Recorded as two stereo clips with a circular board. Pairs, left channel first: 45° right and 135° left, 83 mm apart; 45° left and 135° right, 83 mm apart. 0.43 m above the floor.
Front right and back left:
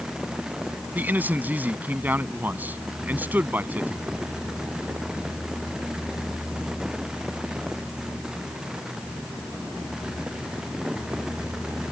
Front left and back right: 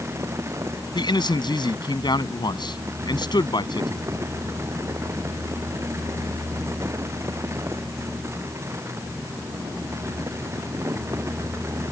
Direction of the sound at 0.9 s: 70° left.